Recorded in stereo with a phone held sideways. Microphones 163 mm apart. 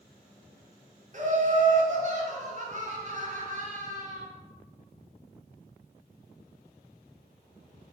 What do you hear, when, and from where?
1.1 s laughter: 45° right (ahead or behind), 0.9 m